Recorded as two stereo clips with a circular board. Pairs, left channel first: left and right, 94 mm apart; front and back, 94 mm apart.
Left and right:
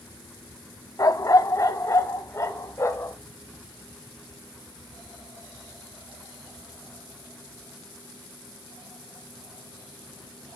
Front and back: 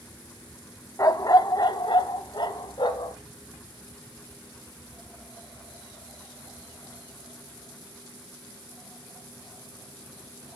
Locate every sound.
1.0 s a dog barking: 45° left, 0.5 m; by 3.2 s 30° left, 1.6 m